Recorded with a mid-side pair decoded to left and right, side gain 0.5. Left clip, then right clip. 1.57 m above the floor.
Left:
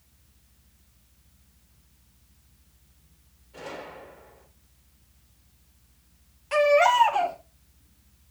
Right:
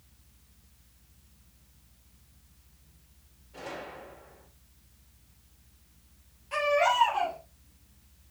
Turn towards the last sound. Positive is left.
turn(degrees=60)